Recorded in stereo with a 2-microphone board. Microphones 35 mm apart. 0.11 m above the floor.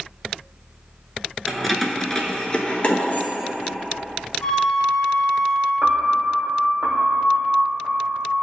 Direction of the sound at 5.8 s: 75° right (ahead or behind).